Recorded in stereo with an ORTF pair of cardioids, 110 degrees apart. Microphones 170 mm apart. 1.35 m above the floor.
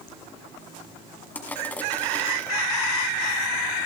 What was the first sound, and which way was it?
Crushing, 10° left.